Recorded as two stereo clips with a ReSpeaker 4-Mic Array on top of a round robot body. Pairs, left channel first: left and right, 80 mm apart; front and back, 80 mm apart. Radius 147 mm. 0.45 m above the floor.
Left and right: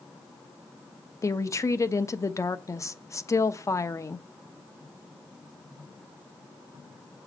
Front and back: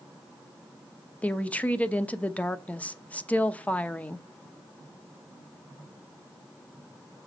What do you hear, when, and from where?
1.2 s a woman speaking: 65° left, 1.1 m